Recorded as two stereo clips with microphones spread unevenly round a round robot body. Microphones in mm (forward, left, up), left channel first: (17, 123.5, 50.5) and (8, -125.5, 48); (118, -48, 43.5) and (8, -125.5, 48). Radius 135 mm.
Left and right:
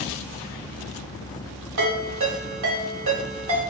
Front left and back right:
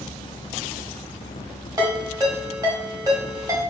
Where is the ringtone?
80° right, 1.7 m.